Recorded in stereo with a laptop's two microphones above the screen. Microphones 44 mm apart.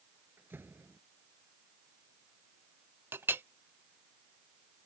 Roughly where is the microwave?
I don't hear a microwave.